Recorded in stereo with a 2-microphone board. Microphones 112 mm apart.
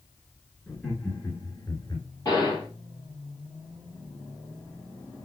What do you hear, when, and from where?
0.7 s laughter: 10° left (ahead or behind), 1.7 m; by 2.1 s 35° left (ahead or behind), 1.9 m
2.2 s a gunshot: 30° left (ahead or behind), 3.5 m